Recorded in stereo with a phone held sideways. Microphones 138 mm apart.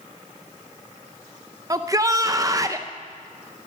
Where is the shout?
25° right (ahead or behind), 0.5 m.